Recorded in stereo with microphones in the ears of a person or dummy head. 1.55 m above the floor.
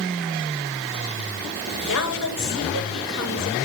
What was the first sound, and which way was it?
A woman speaking, 85° left.